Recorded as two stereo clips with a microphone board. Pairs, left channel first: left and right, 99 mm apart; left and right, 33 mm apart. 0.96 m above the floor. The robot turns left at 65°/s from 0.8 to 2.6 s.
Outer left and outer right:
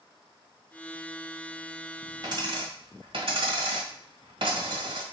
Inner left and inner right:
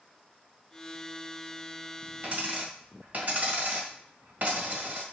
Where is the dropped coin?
45° right (ahead or behind), 1.4 m; by 5.0 s 65° right (ahead or behind), 1.4 m.